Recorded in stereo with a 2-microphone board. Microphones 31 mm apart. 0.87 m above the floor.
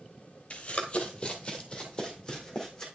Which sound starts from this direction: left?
Running footsteps, at 0.5 s.